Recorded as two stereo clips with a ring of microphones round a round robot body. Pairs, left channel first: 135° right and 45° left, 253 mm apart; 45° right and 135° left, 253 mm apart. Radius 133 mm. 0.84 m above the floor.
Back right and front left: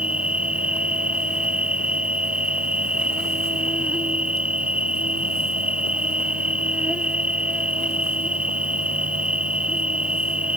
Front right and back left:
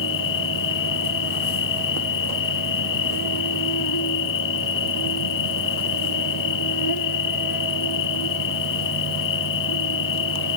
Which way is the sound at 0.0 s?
40° right.